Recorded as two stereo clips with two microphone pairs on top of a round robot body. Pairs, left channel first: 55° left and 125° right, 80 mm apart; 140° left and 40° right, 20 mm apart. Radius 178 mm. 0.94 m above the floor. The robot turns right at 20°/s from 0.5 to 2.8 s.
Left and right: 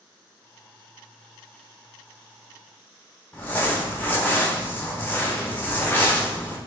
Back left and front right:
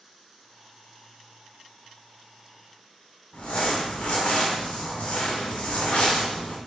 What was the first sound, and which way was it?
Crumpling, 125° left.